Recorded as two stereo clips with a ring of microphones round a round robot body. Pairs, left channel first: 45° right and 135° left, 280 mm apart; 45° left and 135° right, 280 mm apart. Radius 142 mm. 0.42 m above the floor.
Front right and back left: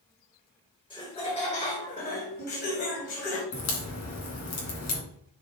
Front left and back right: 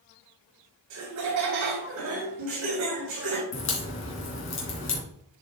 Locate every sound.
0.9 s laughter: 115° right, 2.5 m; by 3.4 s 85° right, 2.5 m
3.5 s a crack: 5° right, 2.5 m